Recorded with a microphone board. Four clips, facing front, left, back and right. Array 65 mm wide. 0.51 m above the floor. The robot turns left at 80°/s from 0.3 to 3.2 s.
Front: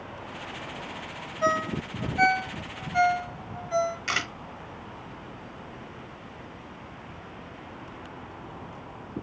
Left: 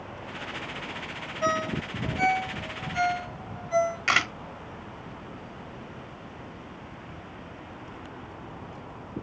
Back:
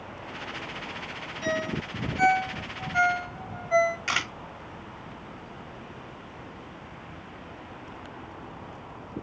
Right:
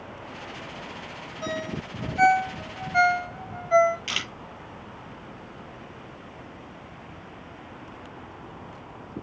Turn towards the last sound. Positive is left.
turn(degrees=95)